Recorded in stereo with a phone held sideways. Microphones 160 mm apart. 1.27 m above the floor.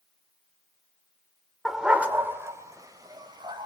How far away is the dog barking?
About 1.6 m.